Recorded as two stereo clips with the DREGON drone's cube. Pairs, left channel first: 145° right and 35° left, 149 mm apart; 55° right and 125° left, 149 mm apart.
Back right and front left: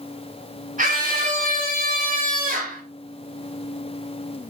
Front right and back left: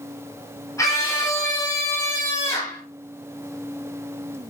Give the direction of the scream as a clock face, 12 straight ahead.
12 o'clock.